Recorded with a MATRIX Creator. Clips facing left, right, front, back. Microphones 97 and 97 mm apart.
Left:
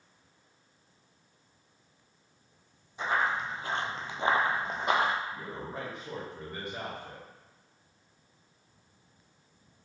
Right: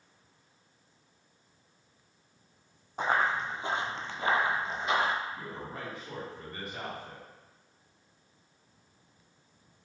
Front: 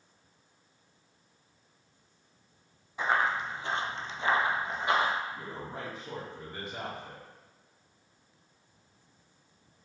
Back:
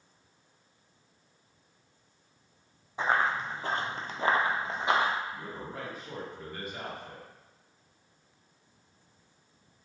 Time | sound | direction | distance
3.0 | running footsteps | 120° right | 0.9 m
5.3 | a man speaking | 45° left | 1.3 m